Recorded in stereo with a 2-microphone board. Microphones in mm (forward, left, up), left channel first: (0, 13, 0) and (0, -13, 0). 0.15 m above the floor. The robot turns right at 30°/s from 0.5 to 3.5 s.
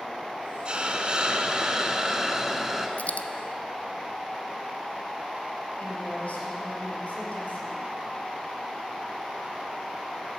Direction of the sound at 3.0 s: 75° left (ahead or behind).